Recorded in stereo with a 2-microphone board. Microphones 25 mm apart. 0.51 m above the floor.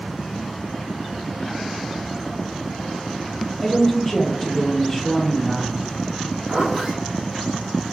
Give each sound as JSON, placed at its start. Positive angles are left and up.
{"t": 3.6, "sound": "a woman speaking", "side_deg": 15, "distance_m": 0.8}
{"t": 6.5, "sound": "a zipper", "side_deg": -45, "distance_m": 1.9}